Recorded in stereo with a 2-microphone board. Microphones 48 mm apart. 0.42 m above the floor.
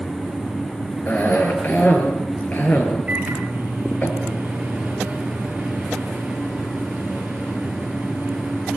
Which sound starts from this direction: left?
A cough, at 1.1 s.